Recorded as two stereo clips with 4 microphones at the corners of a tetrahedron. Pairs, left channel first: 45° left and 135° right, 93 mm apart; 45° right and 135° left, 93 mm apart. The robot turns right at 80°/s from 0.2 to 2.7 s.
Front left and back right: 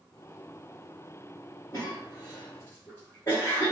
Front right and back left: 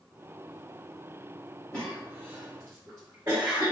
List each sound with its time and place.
1.7 s a cough: 5° left, 1.5 m; by 3.7 s 85° left, 1.5 m